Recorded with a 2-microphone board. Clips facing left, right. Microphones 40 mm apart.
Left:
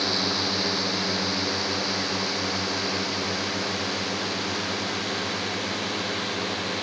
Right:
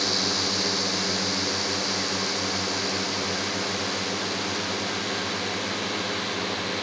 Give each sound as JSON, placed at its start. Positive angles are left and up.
{"t": 0.0, "sound": "a drone", "side_deg": 15}